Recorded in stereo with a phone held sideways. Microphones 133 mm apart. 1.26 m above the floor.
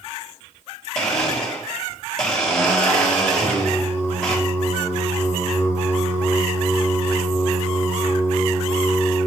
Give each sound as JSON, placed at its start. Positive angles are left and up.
{"t": 0.9, "sound": "a blender", "side_deg": 5, "distance_m": 1.2}
{"t": 3.4, "sound": "singing", "side_deg": 15, "distance_m": 2.0}